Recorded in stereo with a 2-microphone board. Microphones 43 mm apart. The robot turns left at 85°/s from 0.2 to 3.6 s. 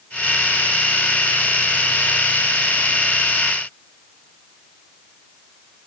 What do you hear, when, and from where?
Only background noise.